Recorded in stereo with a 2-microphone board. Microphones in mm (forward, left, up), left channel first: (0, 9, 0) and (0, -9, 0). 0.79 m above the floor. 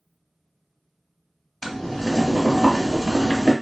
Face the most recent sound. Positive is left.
turn(degrees=40)  # may be behind; listen again after turning